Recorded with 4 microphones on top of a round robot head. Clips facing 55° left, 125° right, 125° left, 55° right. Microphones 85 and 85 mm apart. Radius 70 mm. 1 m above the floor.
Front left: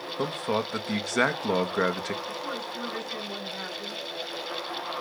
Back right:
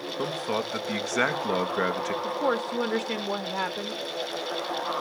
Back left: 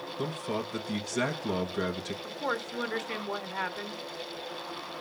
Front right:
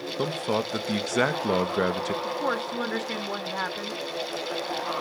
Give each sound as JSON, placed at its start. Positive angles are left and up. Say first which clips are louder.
{"t": 0.2, "sound": "a man speaking", "louder": "front left 1 dB, front right 6 dB", "azimuth_deg": -25, "distance_m": 1.4}
{"t": 2.2, "sound": "a woman speaking", "louder": "back right 8 dB, front right 6 dB", "azimuth_deg": -125, "distance_m": 1.5}